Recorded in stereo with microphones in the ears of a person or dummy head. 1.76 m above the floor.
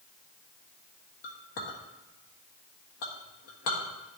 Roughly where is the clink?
Left.